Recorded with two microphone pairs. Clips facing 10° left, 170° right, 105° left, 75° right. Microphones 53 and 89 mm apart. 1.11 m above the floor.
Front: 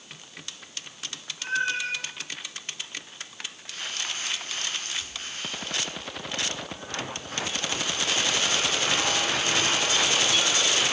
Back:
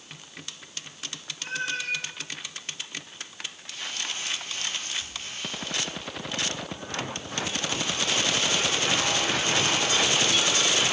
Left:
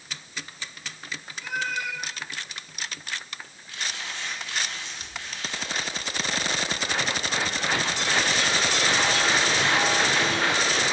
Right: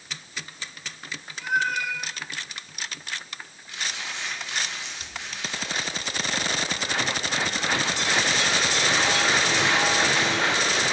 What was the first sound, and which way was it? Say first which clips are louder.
A cat meowing: front 4 dB, right 5 dB; 45° right.